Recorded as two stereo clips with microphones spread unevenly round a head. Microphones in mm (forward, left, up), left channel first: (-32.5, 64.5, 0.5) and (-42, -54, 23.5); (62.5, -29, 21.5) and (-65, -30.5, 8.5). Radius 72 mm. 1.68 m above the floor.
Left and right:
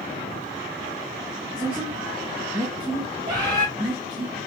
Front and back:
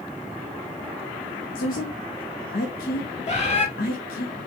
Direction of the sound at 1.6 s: 15° right.